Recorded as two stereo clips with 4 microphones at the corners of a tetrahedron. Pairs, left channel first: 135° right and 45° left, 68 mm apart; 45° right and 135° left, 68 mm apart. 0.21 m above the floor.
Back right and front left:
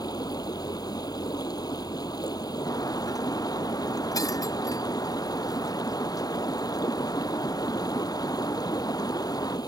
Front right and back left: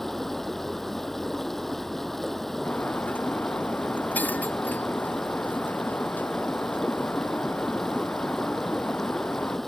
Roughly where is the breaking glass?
Right.